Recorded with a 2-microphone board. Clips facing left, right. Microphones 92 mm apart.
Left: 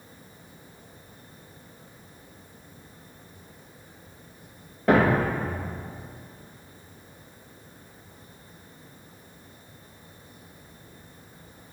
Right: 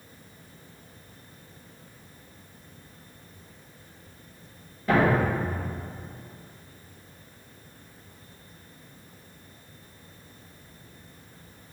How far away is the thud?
About 1.6 m.